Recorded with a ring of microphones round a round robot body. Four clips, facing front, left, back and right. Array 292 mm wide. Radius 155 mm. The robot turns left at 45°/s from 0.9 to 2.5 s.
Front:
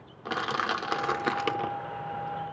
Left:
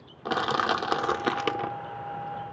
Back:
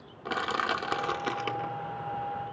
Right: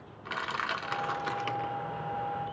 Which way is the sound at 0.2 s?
90° left.